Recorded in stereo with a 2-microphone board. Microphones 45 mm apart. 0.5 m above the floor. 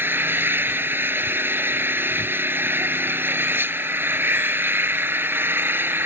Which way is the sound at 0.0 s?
55° right (ahead or behind).